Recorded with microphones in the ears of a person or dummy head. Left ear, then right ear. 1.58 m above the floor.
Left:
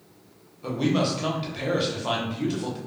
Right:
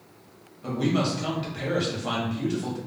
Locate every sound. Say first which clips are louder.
0.6 s a man speaking: left 1 dB; 10° left (ahead or behind), 0.8 m